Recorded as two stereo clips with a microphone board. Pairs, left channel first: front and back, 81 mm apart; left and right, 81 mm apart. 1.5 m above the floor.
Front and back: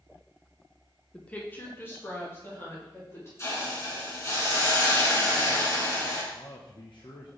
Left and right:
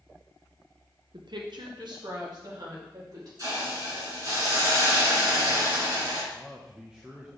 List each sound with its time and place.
1.1 s a woman speaking: 80° right, 0.8 m; by 3.3 s 55° right, 3.5 m
3.4 s a hiss: 50° right, 3 m
6.3 s a man speaking: 10° right, 0.8 m